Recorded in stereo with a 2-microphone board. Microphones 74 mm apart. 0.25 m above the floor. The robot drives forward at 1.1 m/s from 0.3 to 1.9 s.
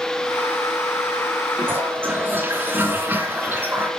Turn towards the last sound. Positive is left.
turn(degrees=-30)  # may be behind; listen again after turning